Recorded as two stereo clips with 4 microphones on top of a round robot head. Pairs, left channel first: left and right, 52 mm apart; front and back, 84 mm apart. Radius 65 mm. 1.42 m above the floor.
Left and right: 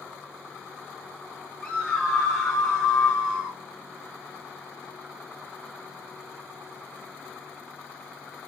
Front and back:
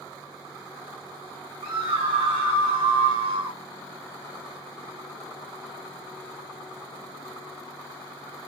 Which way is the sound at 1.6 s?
170° left.